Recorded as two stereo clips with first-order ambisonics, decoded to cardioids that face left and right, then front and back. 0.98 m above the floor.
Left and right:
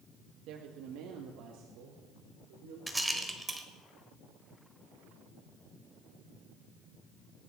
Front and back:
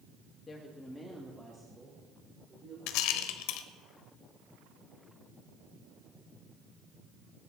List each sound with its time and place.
0.5 s a woman speaking: 65° right, 1.5 m; by 2.8 s 110° right, 4.5 m
2.9 s a rattle: 5° right, 1.4 m